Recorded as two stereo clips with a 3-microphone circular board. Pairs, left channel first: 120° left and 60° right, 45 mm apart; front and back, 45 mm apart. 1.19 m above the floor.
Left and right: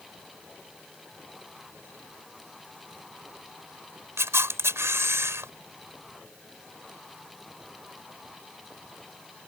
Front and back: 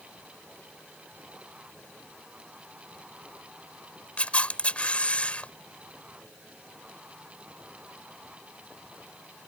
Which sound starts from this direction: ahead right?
A camera shutter, at 4.2 s.